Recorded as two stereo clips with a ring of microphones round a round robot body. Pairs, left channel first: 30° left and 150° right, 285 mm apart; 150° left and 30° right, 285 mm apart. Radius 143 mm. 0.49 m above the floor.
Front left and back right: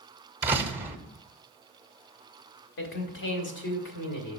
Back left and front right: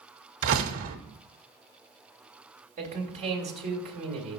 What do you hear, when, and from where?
0.4 s a door slam: 70° right, 0.8 m
2.8 s a man speaking: 25° left, 1.5 m